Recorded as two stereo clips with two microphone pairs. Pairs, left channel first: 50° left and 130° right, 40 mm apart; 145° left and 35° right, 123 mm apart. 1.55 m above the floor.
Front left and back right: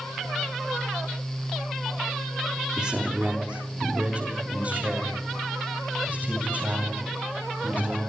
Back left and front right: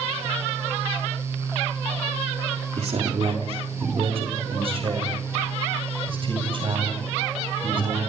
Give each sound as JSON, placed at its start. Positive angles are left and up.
{"t": 2.8, "sound": "a man speaking", "azimuth_deg": -60, "distance_m": 3.0}